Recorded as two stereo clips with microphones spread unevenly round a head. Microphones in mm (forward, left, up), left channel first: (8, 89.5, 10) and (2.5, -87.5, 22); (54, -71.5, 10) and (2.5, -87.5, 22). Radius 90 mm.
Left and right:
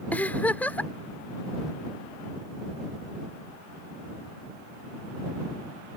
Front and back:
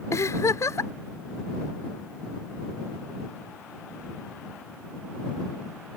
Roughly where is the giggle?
Ahead.